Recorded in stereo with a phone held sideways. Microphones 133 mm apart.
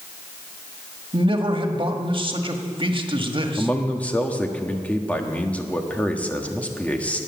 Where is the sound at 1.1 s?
40° right (ahead or behind), 1.5 m.